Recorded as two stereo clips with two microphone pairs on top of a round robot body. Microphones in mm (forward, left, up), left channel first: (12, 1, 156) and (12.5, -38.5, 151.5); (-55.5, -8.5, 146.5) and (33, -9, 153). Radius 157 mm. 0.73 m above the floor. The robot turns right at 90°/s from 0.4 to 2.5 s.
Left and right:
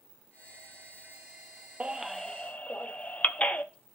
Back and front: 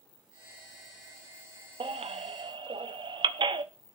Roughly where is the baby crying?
Ahead right.